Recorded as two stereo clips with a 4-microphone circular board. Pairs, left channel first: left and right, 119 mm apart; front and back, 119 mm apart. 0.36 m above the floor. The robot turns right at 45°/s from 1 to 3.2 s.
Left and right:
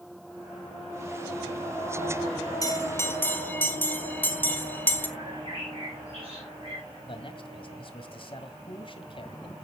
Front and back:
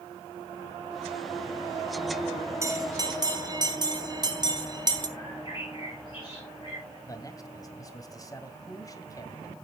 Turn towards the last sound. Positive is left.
turn(degrees=55)